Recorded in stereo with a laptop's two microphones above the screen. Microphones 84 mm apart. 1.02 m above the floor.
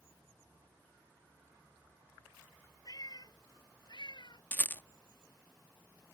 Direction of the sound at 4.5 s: 20° left (ahead or behind).